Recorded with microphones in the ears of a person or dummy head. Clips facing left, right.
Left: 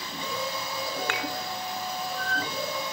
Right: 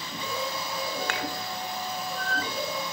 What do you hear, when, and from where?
1.1 s dishes clattering: 25° right (ahead or behind), 0.9 m